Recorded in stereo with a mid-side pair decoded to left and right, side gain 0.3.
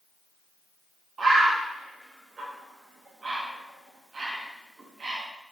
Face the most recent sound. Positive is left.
turn(degrees=-60)